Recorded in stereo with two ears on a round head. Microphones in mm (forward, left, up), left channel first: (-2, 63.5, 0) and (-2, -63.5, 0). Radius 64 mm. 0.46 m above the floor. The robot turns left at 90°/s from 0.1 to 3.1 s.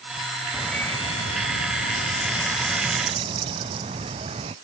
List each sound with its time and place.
0.5 s a bird: 170° right; by 4.5 s 40° right